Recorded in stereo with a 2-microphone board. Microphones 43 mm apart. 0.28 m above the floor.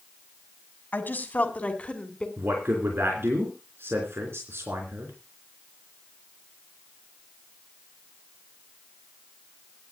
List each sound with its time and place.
0.9 s a woman speaking: 50° left (ahead or behind), 2.5 m; by 2.3 s 25° left (ahead or behind), 3 m
2.4 s a man speaking: 65° right (ahead or behind), 3.5 m